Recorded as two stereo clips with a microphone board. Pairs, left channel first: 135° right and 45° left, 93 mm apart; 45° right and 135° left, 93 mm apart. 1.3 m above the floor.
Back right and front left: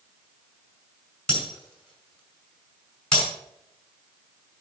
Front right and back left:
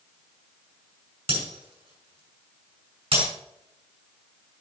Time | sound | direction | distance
1.3 | breaking glass | 140° left | 5.5 m